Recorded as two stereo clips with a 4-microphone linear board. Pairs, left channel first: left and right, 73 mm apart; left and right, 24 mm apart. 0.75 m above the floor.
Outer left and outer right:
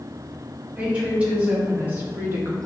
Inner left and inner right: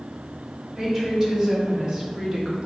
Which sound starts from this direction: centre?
A woman speaking, at 0.8 s.